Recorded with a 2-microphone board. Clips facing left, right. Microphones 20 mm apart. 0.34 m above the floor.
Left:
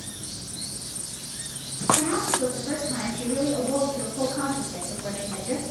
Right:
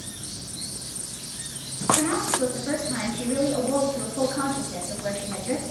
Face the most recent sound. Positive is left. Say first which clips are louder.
# right 1 dB
turn(degrees=-35)  # may be behind; listen again after turning